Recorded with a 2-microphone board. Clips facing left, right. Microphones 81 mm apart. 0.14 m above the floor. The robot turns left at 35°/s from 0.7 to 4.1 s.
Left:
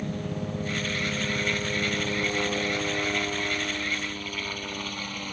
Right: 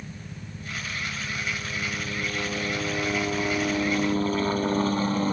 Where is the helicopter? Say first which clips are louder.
Left 9 dB; 85° left; by 5.3 s 35° right.